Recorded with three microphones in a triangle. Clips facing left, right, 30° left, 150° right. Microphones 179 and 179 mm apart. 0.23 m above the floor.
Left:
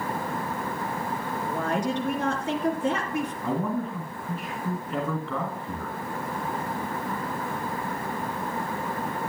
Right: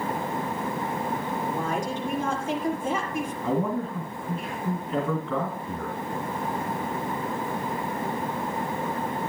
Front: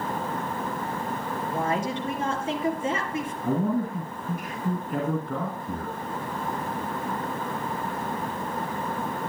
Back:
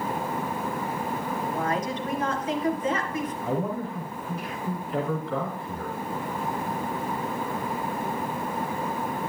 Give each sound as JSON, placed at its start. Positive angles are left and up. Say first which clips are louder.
{"t": 1.5, "sound": "a woman speaking", "louder": "left 4 dB, front 2 dB", "azimuth_deg": 90, "distance_m": 3.0}
{"t": 3.4, "sound": "a man speaking", "louder": "right 4 dB, front 6 dB", "azimuth_deg": 0, "distance_m": 2.5}